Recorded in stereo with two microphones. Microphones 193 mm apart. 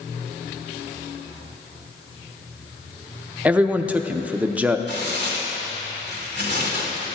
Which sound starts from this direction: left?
Tearing paper, at 4.9 s.